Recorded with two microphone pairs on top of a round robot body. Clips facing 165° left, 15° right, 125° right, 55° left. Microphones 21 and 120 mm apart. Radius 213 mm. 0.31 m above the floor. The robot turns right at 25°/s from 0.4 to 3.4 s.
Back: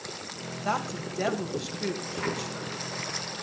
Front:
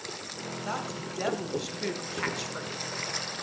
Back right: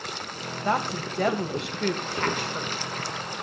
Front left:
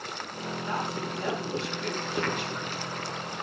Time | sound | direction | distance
0.7 | a woman speaking | 125° right | 2.5 m